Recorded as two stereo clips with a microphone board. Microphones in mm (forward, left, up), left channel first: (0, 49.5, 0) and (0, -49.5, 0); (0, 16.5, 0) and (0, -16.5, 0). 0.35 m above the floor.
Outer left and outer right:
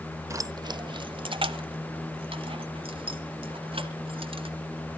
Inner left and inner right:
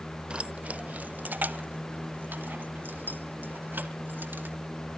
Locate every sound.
0.3 s keys jangling: 30° right (ahead or behind), 0.5 m; by 4.5 s 70° right (ahead or behind), 3 m